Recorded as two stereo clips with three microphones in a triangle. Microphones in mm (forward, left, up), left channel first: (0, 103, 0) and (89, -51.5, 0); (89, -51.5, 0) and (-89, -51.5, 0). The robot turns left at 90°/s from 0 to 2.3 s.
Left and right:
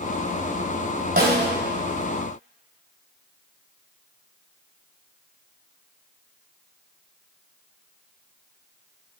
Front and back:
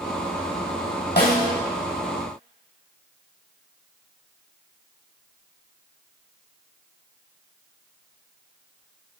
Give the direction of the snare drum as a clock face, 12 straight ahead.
1 o'clock.